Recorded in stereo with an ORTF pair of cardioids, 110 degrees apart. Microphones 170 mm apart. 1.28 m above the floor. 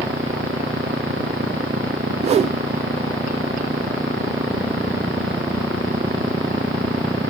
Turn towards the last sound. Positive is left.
turn(degrees=-40)